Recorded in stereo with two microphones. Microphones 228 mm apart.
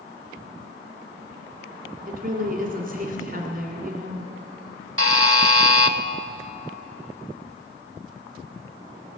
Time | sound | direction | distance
2.1 | a woman speaking | 40° right (ahead or behind) | 1.7 m
5.0 | a buzzer | 75° right (ahead or behind) | 0.7 m